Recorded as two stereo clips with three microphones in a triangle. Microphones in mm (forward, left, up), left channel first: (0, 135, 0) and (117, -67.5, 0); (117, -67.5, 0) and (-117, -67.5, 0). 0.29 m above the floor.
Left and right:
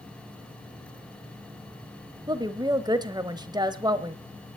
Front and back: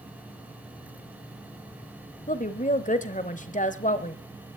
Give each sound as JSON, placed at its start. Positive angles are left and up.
{"t": 2.3, "sound": "a woman speaking", "azimuth_deg": -5, "distance_m": 1.0}